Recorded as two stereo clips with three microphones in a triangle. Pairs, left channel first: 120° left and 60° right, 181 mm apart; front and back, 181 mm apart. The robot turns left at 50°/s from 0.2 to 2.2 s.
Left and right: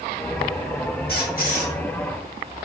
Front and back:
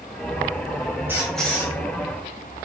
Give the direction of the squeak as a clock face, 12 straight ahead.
9 o'clock.